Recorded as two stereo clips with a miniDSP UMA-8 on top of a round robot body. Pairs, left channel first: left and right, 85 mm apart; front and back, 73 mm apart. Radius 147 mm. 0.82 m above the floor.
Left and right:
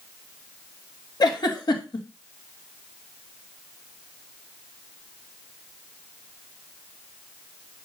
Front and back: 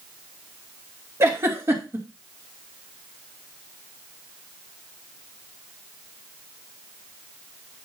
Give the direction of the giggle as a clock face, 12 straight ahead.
8 o'clock.